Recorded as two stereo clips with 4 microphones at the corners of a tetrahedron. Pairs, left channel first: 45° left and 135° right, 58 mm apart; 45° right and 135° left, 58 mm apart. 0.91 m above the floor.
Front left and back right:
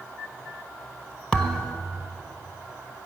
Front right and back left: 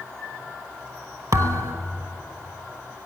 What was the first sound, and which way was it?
A thud, 120° left.